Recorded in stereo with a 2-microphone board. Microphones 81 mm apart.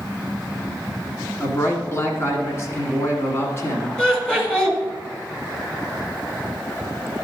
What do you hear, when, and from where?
1.4 s a man speaking: 35° left (ahead or behind), 1.9 m
4.0 s laughter: 10° left (ahead or behind), 2.0 m